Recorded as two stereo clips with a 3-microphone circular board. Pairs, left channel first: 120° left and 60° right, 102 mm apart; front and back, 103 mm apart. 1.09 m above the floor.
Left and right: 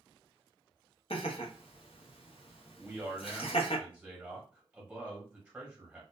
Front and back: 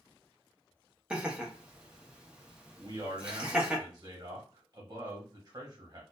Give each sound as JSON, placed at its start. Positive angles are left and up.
{"t": 1.1, "sound": "laughter", "azimuth_deg": 100, "distance_m": 0.8}
{"t": 2.8, "sound": "a man speaking", "azimuth_deg": -135, "distance_m": 1.3}